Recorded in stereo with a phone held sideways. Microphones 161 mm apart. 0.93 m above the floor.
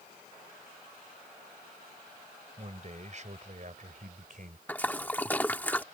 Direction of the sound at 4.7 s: 10° left (ahead or behind).